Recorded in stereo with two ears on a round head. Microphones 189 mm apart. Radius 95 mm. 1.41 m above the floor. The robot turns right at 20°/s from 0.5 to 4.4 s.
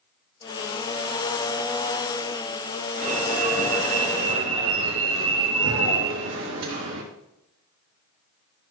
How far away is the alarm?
About 3 m.